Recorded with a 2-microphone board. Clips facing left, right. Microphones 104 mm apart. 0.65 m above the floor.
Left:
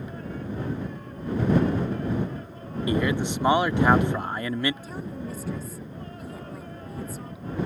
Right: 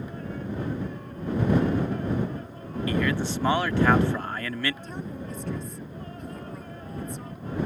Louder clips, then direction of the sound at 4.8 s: Left 1 dB; 5° left (ahead or behind).